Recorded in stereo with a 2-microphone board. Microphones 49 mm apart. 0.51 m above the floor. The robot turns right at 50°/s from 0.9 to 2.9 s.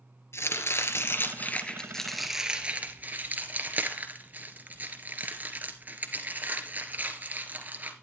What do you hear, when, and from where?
0.3 s chopping: 65° left (ahead or behind), 1.7 m; by 7.9 s 35° right (ahead or behind), 1.7 m